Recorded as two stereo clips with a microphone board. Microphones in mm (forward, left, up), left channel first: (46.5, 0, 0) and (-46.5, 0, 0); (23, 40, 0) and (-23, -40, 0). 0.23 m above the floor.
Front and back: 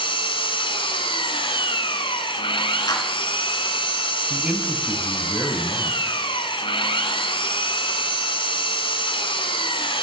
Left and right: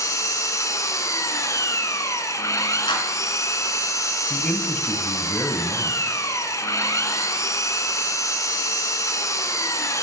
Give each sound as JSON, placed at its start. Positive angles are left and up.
{"t": 0.0, "sound": "an engine running", "azimuth_deg": 10, "distance_m": 1.4}
{"t": 2.9, "sound": "a clap", "azimuth_deg": 40, "distance_m": 2.5}
{"t": 4.3, "sound": "a man speaking", "azimuth_deg": 120, "distance_m": 1.4}